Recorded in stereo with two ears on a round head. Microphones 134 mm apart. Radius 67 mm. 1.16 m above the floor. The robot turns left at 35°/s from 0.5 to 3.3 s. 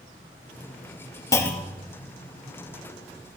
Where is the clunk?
20° left (ahead or behind), 1.2 m; by 1.9 s centre (ahead or behind), 1.2 m.